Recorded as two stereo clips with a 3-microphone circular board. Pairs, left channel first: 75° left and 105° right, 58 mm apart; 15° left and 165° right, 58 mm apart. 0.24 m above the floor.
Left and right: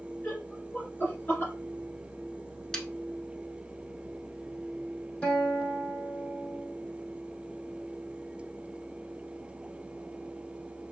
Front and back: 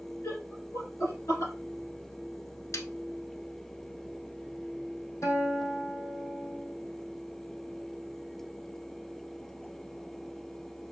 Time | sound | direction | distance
0.2 | laughter | 15° left | 2.5 m
2.7 | a snare drum | 5° right | 0.7 m
5.2 | a guitar | straight ahead | 3 m